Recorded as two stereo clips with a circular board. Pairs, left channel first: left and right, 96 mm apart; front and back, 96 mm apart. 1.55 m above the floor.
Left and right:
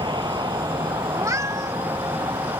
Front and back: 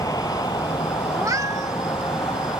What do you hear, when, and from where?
0.0 s a vehicle: 50° right; by 2.6 s 40° right
1.1 s a cat meowing: 140° right